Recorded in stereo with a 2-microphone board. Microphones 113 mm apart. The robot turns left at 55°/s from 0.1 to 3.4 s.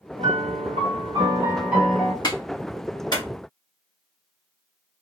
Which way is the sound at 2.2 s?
35° left (ahead or behind).